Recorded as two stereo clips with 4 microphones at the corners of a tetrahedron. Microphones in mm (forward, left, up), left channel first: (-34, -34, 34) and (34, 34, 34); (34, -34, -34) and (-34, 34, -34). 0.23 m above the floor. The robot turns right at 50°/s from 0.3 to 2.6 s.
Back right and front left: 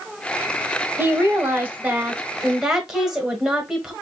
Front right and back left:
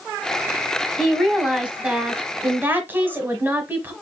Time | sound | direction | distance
1.0 | a woman speaking | 40° left | 1.2 m